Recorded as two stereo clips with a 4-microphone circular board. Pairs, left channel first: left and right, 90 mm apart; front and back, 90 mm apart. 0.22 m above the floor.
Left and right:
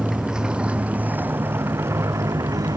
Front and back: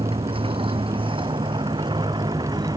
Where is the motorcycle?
Straight behind; by 2.8 s 140° right.